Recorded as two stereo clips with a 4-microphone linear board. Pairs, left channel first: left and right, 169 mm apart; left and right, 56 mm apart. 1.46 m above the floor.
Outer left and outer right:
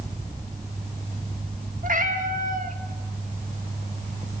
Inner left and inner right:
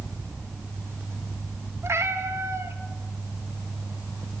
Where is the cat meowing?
50° right (ahead or behind), 1.5 m.